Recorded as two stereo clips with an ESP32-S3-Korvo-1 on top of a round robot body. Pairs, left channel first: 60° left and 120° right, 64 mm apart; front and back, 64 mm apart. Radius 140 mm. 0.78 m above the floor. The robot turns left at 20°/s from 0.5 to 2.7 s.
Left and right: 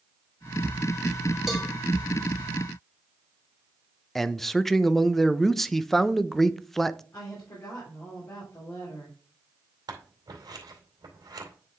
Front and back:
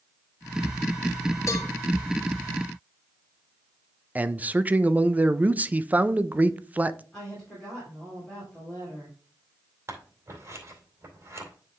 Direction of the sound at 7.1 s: 80° left.